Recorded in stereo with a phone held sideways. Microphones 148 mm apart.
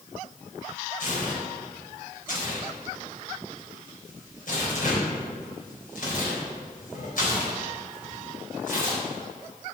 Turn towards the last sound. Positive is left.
turn(degrees=70)  # may be behind; listen again after turning